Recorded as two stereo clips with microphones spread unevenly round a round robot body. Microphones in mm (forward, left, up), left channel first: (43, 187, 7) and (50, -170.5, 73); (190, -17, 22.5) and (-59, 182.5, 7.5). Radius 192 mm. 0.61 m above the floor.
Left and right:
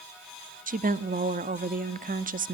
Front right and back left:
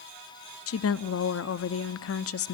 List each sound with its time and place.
0.7 s a woman speaking: 15° right, 0.7 m